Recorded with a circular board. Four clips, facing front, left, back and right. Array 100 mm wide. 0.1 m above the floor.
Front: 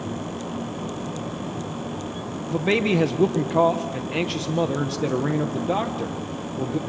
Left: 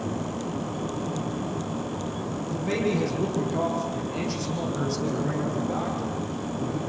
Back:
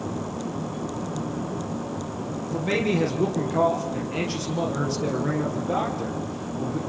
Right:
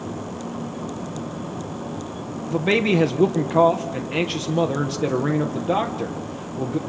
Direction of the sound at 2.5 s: 65° right.